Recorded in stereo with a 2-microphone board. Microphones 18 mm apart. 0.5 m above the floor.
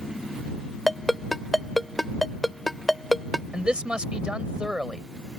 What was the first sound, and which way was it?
A ringtone, 10° left (ahead or behind).